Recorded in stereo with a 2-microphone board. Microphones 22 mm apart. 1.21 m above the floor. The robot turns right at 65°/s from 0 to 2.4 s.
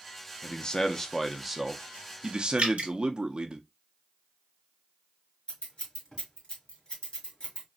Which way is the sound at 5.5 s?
40° left (ahead or behind).